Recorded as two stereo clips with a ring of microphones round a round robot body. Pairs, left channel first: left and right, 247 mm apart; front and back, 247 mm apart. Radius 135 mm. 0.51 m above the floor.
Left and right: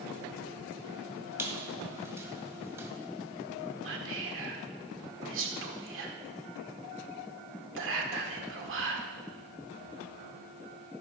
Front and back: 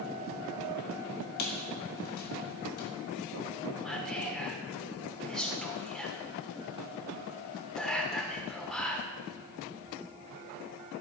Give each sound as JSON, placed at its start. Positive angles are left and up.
{"t": 1.4, "sound": "a squeak", "azimuth_deg": -10, "distance_m": 1.9}
{"t": 3.8, "sound": "whispering", "azimuth_deg": -90, "distance_m": 1.5}